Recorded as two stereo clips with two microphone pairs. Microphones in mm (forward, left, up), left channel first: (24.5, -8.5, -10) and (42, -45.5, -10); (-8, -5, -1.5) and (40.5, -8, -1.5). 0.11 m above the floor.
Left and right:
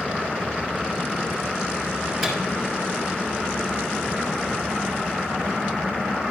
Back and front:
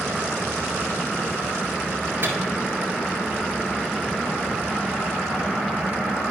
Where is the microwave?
20° left, 1.9 m.